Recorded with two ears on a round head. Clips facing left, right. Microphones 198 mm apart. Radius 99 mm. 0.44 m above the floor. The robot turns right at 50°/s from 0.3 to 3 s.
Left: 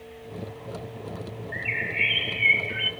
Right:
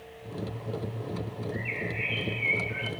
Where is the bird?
55° left, 1.3 m; by 2.9 s 125° left, 1.3 m.